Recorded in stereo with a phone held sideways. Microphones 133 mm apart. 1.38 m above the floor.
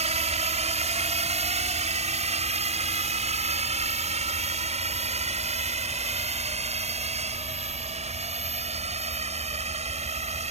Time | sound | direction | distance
0.0 | a drone | 60° right (ahead or behind) | ?